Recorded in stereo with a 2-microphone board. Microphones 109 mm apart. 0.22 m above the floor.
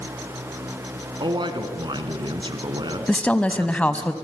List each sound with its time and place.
1.2 s a man speaking: 45° right (ahead or behind), 2.5 m
3.1 s a woman speaking: 10° left (ahead or behind), 1.1 m